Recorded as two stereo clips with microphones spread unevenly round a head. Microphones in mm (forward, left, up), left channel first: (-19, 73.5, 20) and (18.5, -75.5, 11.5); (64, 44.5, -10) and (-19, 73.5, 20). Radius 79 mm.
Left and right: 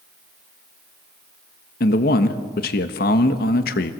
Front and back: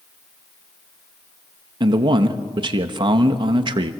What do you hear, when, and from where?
1.8 s a man speaking: 135° left, 1.3 m